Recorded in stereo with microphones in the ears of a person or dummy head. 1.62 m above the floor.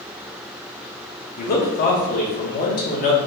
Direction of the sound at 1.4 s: 45° left (ahead or behind).